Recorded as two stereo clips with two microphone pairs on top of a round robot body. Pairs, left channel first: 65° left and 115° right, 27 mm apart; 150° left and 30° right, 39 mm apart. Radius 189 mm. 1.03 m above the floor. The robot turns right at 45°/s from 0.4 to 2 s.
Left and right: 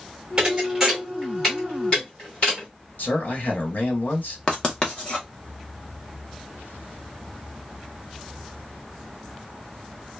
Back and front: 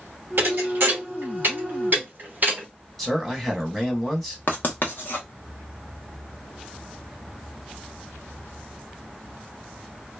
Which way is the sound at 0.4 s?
55° right.